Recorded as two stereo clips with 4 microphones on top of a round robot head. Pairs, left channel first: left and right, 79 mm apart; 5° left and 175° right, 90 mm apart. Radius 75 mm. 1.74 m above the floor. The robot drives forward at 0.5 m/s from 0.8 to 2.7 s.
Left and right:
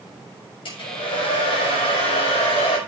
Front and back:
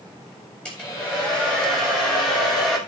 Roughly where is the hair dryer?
Left.